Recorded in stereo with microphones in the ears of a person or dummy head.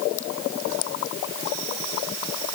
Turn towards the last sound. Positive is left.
No sound to turn to.